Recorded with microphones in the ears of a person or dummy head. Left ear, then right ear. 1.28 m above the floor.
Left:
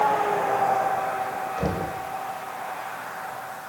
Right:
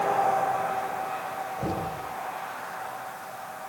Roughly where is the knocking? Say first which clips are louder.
Left 1 dB; left.